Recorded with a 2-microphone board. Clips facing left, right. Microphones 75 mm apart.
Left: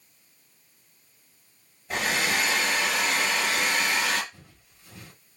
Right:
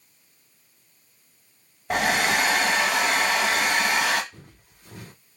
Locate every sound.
1.9 s a hair dryer: 65° right (ahead or behind), 1.1 m
4.3 s footsteps: 75° right (ahead or behind), 3 m